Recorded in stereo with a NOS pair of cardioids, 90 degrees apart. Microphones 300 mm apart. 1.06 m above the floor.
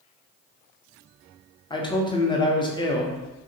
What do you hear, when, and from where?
1.7 s a man speaking: 15° left, 0.7 m